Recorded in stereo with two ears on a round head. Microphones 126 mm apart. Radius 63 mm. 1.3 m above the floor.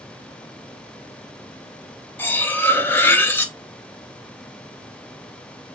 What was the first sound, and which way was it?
Cutlery clinking, 15° left (ahead or behind).